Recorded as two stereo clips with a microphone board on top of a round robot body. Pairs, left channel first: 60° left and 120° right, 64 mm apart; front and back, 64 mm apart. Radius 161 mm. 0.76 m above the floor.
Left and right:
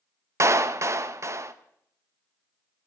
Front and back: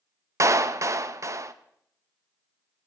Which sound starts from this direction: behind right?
A clap, at 0.4 s.